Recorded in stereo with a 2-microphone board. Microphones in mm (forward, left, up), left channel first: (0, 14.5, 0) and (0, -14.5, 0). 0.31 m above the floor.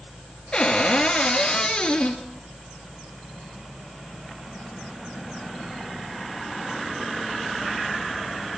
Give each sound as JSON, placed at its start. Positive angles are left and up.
{"t": 0.5, "sound": "a cupboard door", "side_deg": 30, "distance_m": 3.0}